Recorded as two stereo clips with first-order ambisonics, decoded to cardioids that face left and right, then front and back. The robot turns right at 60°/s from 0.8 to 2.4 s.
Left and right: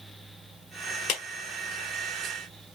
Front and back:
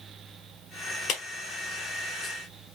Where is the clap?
50° left, 1.2 m; by 1.2 s 55° left, 1.2 m.